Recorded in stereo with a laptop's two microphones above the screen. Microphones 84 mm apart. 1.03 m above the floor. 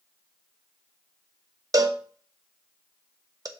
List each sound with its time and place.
1.7 s a cowbell: 45° right (ahead or behind), 0.8 m